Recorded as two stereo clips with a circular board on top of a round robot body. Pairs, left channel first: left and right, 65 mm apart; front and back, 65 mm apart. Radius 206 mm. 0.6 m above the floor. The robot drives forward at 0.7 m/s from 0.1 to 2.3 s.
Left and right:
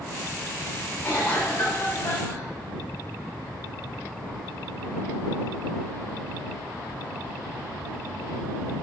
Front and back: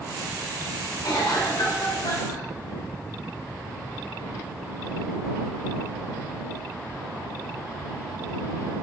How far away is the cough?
About 5 m.